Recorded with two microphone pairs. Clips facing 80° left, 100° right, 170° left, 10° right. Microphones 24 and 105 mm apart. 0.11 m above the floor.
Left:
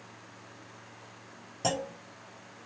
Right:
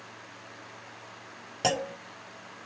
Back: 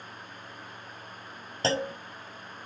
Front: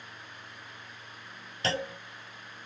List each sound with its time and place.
1.6 s a clunk: 135° right, 0.5 m